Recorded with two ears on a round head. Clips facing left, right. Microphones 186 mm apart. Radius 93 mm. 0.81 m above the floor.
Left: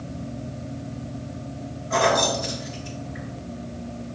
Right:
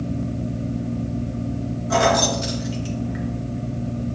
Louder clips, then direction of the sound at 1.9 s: Right 2 dB; 80° right.